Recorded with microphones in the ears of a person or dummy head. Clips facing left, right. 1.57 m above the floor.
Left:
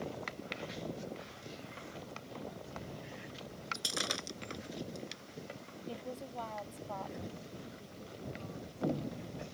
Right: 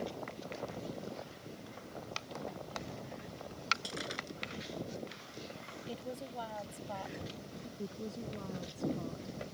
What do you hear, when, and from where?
3.7 s breaking glass: 60° left (ahead or behind)
5.9 s a woman speaking: 10° right (ahead or behind)
7.8 s a woman speaking: 85° right